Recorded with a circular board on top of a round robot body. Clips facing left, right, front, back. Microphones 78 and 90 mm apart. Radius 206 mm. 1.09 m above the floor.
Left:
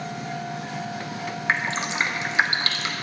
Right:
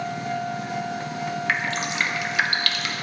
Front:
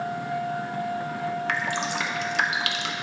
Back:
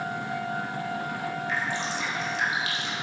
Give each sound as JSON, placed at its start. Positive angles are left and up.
{"t": 1.5, "sound": "dripping", "azimuth_deg": 25, "distance_m": 0.9}